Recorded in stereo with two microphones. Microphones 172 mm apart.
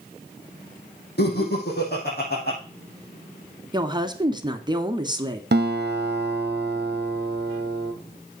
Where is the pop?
No pop in this recording.